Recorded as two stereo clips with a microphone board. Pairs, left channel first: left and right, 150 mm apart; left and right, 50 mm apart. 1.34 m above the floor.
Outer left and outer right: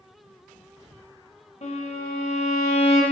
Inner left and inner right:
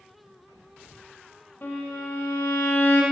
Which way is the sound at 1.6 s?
50° left (ahead or behind).